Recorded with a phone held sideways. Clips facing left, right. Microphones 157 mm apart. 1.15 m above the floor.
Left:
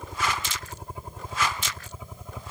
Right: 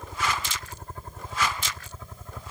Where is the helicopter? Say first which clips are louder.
Even; 10° left (ahead or behind).